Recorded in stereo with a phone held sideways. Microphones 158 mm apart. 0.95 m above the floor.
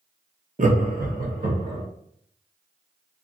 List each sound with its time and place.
0.6 s laughter: 50° right (ahead or behind), 0.7 m; by 1.8 s 60° right (ahead or behind), 1.9 m